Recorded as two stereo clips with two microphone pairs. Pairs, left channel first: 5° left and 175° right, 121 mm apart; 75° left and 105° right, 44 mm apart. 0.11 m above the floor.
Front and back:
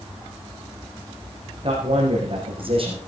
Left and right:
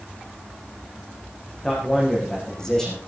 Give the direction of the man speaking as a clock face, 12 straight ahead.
7 o'clock.